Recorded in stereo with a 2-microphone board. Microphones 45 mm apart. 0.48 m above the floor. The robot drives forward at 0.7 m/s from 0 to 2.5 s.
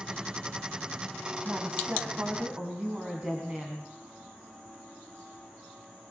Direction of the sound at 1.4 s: 35° right (ahead or behind).